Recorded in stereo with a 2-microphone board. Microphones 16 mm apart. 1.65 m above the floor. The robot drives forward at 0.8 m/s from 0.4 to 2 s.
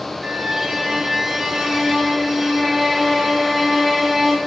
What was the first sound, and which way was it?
A violin, 40° right (ahead or behind).